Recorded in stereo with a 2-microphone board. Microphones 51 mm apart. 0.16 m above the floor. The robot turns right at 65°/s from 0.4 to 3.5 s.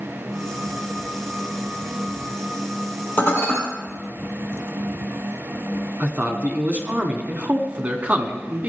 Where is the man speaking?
30° right (ahead or behind), 1.3 m.